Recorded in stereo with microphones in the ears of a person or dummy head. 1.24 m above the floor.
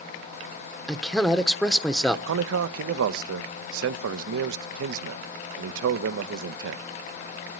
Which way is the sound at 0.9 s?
Centre (ahead or behind).